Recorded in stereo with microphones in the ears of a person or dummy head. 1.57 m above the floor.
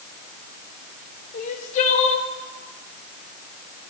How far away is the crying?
About 1.0 m.